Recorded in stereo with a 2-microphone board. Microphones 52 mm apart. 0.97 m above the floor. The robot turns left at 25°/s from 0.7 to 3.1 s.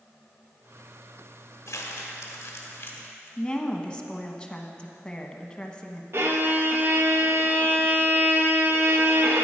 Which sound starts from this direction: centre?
A woman speaking, at 3.4 s.